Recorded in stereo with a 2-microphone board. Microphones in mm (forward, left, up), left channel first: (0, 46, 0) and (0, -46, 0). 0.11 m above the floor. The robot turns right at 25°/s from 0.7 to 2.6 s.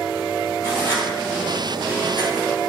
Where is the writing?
25° left (ahead or behind), 1.4 m; by 2.5 s 50° left (ahead or behind), 1.4 m.